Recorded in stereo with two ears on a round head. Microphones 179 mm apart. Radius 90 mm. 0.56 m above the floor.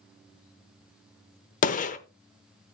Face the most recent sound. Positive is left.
turn(degrees=40)  # may be behind; listen again after turning